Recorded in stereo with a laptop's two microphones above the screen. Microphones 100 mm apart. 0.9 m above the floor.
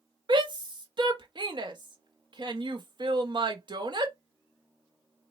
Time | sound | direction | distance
0.3 | a shout | 50° right (ahead or behind) | 1.5 m